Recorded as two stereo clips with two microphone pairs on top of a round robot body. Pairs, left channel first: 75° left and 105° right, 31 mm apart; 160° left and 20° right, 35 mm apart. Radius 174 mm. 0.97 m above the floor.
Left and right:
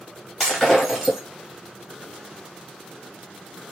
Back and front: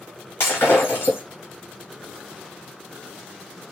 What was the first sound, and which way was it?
Breaking glass, 155° left.